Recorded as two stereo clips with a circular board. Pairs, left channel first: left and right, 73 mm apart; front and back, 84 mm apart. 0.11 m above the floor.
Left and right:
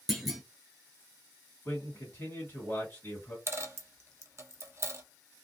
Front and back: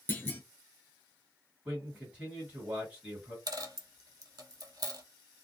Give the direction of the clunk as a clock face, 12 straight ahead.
12 o'clock.